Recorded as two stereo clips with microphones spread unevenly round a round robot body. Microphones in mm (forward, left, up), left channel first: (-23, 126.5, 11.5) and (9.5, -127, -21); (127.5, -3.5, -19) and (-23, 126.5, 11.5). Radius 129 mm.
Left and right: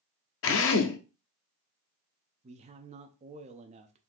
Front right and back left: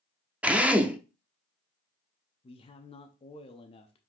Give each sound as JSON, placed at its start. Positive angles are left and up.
{"t": 0.4, "sound": "a drill", "azimuth_deg": 55, "distance_m": 0.7}
{"t": 2.4, "sound": "a man speaking", "azimuth_deg": -55, "distance_m": 0.5}